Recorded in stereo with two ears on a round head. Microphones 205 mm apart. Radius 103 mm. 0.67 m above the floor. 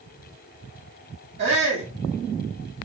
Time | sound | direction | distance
1.4 | a shout | 45° right (ahead or behind) | 1.6 m